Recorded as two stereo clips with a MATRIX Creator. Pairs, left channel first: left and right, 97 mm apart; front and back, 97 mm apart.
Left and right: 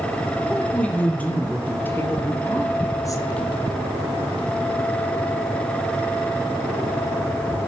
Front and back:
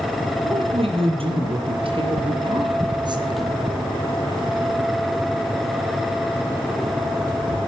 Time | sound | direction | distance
0.4 | a woman speaking | 170° left | 5.5 m